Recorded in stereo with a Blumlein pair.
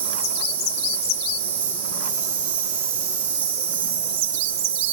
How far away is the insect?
About 4 m.